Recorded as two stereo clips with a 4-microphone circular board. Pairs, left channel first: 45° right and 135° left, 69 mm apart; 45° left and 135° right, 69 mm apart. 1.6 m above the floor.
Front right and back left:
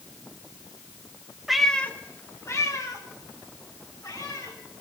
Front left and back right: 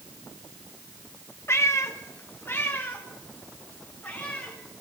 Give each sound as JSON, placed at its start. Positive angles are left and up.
{"t": 1.5, "sound": "a cat meowing", "azimuth_deg": 50, "distance_m": 0.9}